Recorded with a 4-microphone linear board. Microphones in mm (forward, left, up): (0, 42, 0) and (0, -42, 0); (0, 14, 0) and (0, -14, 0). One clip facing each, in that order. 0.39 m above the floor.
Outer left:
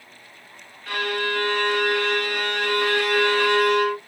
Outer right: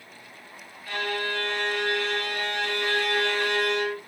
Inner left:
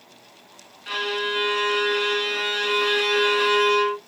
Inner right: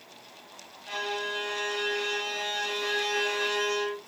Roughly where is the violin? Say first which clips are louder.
Outer left 4 dB, inner left 7 dB; left.